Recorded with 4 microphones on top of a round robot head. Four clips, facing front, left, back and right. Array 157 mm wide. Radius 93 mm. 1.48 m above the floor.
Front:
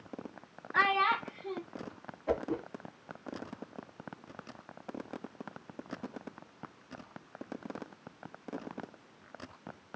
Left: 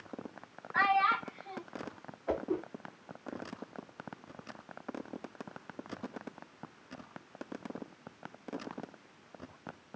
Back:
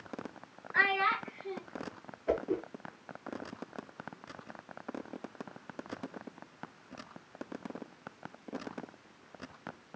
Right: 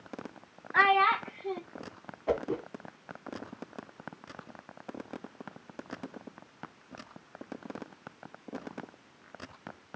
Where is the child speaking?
65° right, 0.8 m.